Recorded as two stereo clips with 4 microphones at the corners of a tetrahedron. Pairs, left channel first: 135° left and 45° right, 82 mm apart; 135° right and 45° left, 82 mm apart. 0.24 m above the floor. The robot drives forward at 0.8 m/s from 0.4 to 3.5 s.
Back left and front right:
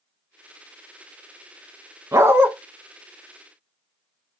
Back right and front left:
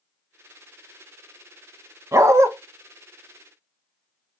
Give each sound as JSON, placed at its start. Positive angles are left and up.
{"t": 2.1, "sound": "a dog barking", "azimuth_deg": 0, "distance_m": 0.9}